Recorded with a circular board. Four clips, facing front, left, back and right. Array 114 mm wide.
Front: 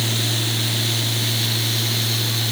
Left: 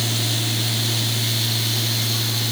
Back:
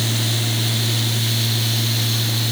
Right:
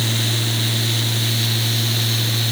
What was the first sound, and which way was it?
Only background noise.